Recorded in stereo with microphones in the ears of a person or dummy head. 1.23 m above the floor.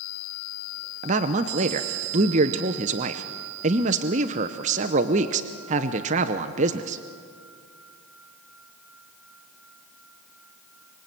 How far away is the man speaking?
About 0.8 m.